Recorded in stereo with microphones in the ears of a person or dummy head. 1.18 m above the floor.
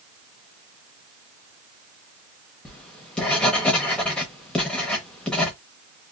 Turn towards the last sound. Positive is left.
turn(degrees=10)  # may be behind; listen again after turning